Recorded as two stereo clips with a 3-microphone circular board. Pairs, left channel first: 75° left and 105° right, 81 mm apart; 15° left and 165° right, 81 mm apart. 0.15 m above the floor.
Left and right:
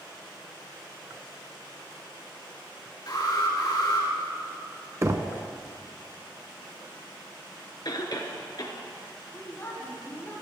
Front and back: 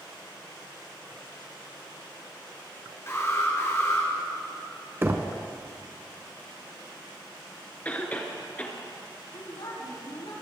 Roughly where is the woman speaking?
Ahead.